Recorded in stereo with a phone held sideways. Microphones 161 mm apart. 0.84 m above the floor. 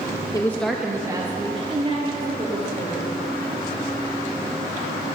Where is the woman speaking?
25° left (ahead or behind), 0.7 m; by 3.2 s 45° right (ahead or behind), 3 m.